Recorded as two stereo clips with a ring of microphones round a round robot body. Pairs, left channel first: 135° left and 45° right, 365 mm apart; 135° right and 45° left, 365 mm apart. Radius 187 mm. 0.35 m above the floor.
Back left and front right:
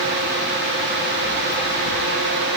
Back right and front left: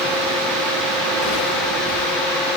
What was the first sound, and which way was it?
Only background noise.